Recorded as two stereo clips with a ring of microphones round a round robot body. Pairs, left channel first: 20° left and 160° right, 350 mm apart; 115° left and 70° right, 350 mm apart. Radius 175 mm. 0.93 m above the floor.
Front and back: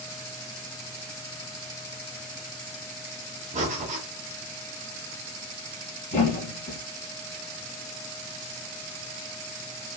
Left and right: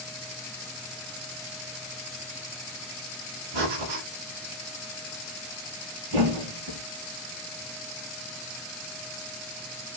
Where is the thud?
45° right, 1.9 m.